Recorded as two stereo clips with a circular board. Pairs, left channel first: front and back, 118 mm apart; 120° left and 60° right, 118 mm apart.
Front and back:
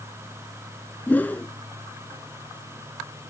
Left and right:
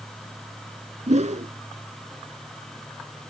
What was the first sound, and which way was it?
A whoosh, 75° right.